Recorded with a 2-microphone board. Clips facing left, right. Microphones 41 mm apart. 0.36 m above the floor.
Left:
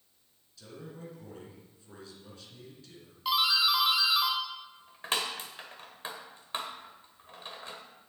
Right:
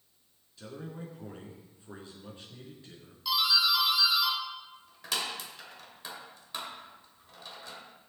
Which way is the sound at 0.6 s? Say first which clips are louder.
Right 3 dB; 30° right (ahead or behind).